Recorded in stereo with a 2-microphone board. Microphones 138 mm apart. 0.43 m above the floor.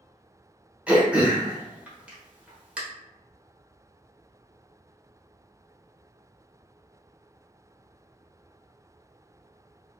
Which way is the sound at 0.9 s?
10° right (ahead or behind).